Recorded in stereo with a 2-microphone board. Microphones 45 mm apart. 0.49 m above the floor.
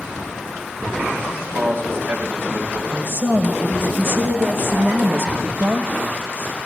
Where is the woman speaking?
60° right (ahead or behind), 2.0 m.